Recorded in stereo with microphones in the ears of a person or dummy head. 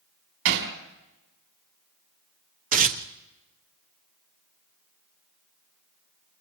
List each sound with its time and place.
0.5 s hammering: 70° right (ahead or behind), 4 m
2.7 s tearing paper: 45° right (ahead or behind), 1.2 m